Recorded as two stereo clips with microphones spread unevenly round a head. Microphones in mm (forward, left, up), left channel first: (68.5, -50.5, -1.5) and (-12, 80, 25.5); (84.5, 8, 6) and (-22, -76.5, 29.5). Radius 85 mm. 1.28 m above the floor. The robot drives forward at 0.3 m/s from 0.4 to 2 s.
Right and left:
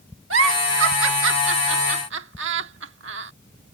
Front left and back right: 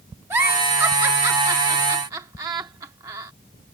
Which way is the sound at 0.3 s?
140° left.